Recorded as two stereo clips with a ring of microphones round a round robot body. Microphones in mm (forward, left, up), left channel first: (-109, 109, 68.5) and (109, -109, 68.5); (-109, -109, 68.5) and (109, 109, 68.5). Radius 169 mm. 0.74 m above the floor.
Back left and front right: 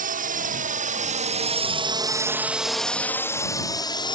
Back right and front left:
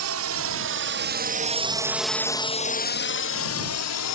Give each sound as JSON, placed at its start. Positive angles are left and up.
{"t": 0.0, "sound": "a drone", "azimuth_deg": 15}